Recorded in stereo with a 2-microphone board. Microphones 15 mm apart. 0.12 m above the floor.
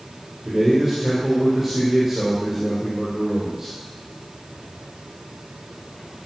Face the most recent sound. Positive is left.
turn(degrees=-15)  # may be behind; listen again after turning